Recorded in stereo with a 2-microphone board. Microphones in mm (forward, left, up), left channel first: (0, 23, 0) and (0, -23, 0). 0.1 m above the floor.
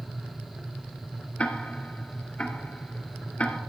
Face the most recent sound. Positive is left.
turn(degrees=30)  # may be behind; listen again after turning